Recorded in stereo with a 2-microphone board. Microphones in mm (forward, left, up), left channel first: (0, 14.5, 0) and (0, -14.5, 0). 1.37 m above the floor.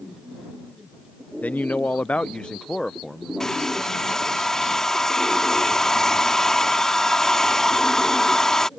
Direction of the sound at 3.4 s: 20° left (ahead or behind).